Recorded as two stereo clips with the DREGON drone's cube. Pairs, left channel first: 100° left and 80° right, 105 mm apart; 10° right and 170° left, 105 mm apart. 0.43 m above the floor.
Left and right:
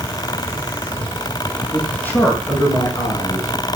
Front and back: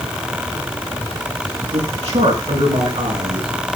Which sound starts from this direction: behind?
A man speaking, at 1.7 s.